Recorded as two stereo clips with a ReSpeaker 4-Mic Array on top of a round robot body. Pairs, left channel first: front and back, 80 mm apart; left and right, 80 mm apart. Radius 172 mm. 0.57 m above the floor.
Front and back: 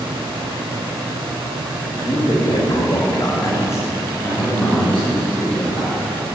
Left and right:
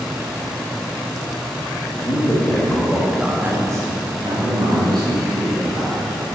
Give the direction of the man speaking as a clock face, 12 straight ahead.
11 o'clock.